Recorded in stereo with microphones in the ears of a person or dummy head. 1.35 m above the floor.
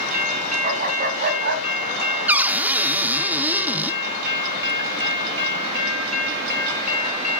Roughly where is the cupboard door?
Centre.